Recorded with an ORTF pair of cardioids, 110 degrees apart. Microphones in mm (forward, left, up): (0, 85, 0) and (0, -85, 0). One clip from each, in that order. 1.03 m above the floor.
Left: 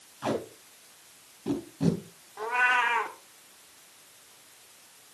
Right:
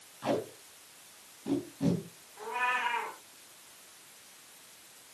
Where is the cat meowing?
55° left, 1.7 m.